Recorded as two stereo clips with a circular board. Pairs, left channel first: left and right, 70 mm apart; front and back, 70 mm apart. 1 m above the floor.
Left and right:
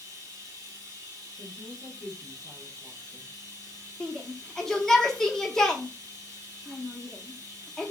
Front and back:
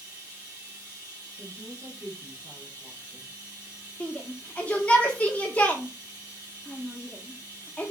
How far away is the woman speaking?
About 0.9 m.